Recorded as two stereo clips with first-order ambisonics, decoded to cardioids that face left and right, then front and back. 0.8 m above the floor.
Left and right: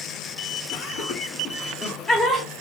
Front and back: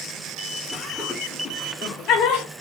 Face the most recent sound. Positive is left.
turn(degrees=10)